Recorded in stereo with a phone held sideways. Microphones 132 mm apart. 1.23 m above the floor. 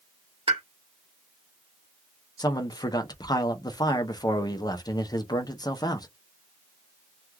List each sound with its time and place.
0.5 s a pop: 40° right (ahead or behind), 1.1 m
2.4 s a man speaking: 30° left (ahead or behind), 0.6 m